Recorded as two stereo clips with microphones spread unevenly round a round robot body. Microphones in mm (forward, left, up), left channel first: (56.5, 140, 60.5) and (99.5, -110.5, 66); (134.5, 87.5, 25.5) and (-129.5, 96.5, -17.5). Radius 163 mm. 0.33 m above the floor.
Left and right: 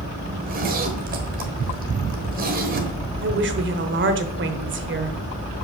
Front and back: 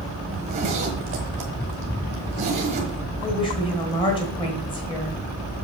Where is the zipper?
130° right, 1.3 m.